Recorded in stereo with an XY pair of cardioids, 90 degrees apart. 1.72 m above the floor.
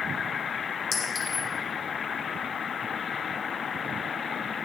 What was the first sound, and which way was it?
A clink, 55° left.